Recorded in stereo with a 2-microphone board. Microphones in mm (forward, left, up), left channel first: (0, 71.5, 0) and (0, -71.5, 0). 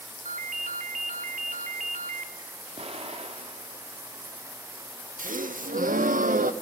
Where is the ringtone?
65° right (ahead or behind), 1.6 m.